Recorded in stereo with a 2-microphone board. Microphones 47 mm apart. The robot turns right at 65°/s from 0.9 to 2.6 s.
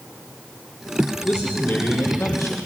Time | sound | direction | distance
1.2 | a man speaking | 15° left | 5.5 m